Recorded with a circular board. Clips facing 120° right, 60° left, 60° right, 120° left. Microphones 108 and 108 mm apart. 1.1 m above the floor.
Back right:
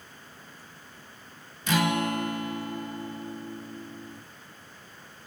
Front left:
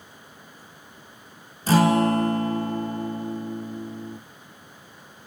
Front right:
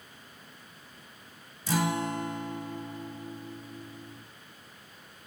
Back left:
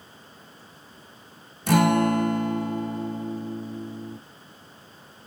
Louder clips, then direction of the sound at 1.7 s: Front left 7 dB, back left 10 dB; 110° left.